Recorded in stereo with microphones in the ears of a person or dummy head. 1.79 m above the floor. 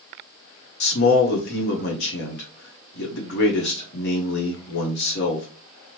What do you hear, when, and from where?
0.8 s a man speaking: 60° left (ahead or behind), 0.9 m